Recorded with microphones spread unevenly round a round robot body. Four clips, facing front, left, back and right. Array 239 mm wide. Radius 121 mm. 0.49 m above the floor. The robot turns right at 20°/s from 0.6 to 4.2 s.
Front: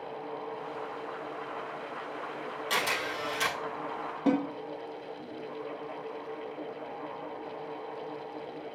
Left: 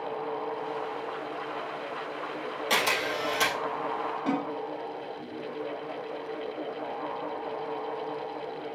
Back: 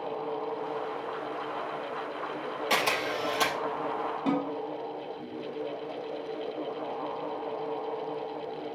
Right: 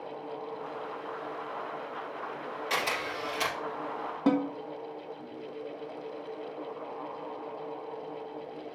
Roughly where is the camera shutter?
Behind left.